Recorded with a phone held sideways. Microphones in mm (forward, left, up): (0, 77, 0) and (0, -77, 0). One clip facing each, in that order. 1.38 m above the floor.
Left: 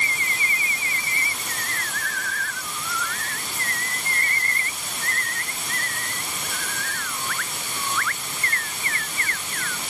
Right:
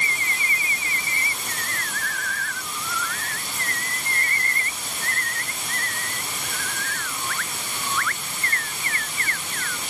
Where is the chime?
I don't hear a chime.